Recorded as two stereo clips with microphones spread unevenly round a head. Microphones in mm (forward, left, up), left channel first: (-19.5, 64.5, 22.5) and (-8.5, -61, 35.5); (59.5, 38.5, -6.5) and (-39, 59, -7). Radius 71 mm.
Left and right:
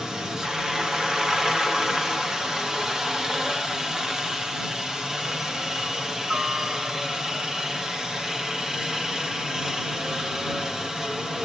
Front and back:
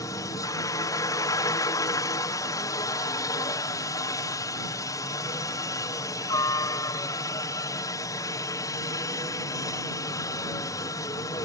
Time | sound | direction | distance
0.0 | a helicopter | 5° left | ?